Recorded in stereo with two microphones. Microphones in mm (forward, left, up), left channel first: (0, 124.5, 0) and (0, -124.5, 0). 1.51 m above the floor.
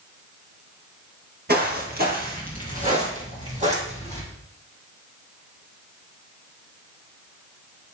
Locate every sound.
1.5 s footsteps: 40° right (ahead or behind), 2.0 m; by 4.2 s 25° right (ahead or behind), 4.5 m